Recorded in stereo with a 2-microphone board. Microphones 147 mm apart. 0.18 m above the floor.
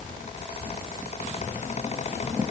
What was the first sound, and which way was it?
Only background noise.